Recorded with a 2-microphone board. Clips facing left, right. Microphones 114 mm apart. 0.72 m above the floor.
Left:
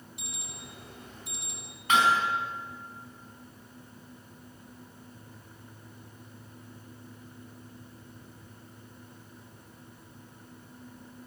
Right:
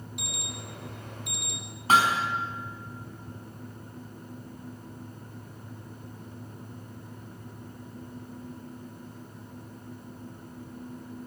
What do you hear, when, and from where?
0.2 s an alarm: 70° right (ahead or behind), 4.5 m
1.9 s hammering: 35° right (ahead or behind), 4 m